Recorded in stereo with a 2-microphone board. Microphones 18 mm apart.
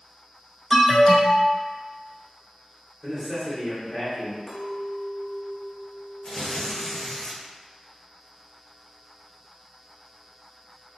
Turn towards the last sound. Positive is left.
turn(degrees=45)  # may be behind; listen again after turning